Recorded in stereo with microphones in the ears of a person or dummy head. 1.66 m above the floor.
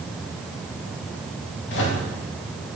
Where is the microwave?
60° left (ahead or behind), 1.9 m.